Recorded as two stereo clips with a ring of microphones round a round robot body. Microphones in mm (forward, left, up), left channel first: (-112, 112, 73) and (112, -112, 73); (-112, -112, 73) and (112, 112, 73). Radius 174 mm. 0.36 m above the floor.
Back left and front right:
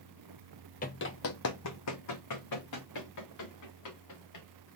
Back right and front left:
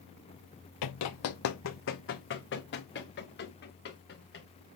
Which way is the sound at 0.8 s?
160° right.